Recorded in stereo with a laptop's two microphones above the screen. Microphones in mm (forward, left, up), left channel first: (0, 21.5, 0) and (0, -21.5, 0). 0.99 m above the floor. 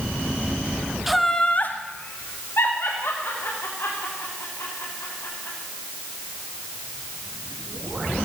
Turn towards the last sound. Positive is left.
turn(degrees=75)  # may be behind; listen again after turning